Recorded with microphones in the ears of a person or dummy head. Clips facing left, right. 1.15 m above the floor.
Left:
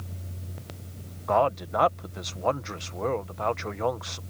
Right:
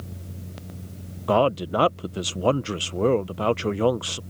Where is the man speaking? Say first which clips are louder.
Right 4 dB; 40° right (ahead or behind).